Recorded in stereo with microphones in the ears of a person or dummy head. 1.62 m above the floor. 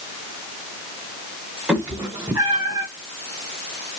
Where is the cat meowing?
10° right (ahead or behind), 3 m; by 2.9 s 25° right (ahead or behind), 2 m.